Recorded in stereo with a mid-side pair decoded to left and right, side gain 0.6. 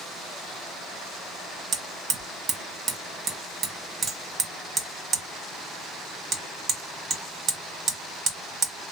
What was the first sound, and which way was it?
Hammering, 40° right.